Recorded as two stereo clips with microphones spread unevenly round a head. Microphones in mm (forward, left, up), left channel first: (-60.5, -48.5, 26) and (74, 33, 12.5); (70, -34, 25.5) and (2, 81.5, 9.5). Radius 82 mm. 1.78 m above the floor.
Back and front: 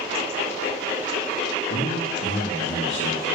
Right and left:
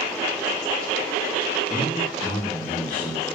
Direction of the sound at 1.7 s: 125° right.